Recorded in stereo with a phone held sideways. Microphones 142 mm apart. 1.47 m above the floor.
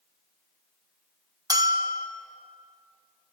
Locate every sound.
1.5 s a bell: 25° right (ahead or behind), 1.2 m